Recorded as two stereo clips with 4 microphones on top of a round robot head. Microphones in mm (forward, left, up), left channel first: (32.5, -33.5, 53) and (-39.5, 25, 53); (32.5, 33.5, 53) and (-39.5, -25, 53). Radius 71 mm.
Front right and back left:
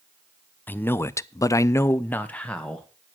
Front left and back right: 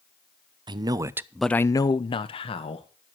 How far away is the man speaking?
About 0.9 m.